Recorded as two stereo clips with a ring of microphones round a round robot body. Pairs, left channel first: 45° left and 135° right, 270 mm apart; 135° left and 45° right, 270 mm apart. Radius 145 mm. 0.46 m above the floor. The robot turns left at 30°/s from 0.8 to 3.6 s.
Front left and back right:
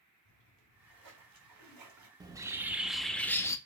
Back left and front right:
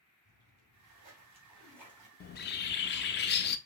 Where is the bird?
160° left, 0.5 m; by 3.6 s 120° left, 0.5 m.